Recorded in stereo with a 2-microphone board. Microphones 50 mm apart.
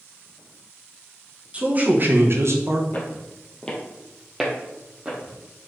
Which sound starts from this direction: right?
A man speaking, at 1.5 s.